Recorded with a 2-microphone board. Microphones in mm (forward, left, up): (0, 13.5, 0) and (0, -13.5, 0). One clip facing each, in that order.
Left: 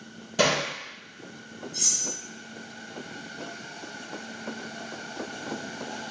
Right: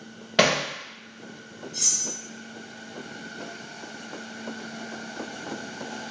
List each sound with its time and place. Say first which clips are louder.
0.4 s hammering: right 3 dB; 60° right (ahead or behind), 0.8 m
1.7 s cutlery clinking: right 1 dB; 45° right (ahead or behind), 2.0 m